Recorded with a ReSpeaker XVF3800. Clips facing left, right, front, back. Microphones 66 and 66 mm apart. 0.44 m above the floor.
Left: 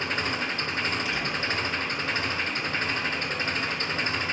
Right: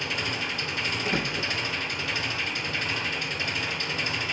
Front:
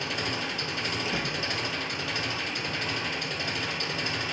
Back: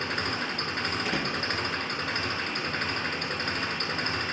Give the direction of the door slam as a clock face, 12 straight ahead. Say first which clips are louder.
Right 1 dB, back 1 dB; 5 o'clock.